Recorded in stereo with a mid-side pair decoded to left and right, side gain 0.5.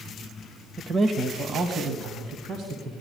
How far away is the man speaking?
About 1.3 m.